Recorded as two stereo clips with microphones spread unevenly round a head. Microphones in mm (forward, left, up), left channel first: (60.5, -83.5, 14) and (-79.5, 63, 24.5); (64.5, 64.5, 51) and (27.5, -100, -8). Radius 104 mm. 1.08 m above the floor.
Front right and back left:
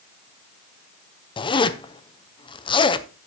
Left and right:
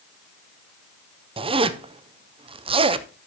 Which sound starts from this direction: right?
A zipper, at 1.4 s.